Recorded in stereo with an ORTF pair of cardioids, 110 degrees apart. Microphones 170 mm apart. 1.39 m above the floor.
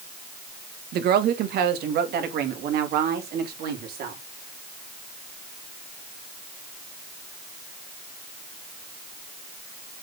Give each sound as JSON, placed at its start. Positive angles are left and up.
{"t": 0.9, "sound": "a woman speaking", "azimuth_deg": -65, "distance_m": 1.4}